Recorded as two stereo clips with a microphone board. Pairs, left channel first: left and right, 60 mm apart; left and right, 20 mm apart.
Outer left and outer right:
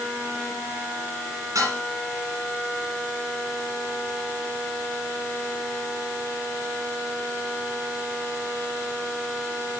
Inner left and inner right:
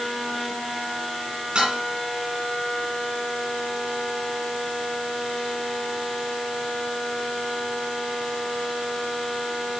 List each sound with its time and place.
1.6 s dishes clattering: 60° right (ahead or behind), 6.5 m